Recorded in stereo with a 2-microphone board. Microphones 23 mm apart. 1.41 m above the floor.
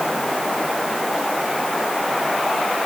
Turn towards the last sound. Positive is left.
No sound to turn to.